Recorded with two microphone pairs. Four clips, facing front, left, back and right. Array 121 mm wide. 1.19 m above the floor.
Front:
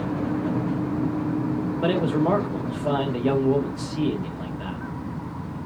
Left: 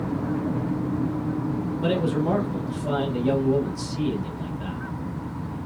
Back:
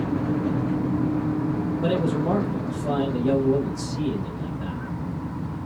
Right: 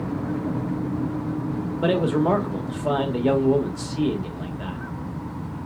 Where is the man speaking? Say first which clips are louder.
Right 4 dB, front 3 dB; 65° right, 1.2 m.